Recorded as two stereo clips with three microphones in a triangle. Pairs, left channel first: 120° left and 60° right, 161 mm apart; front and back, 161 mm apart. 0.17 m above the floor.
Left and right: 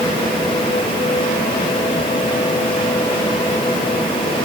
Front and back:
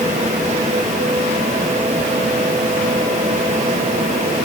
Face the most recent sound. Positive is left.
No sound to turn to.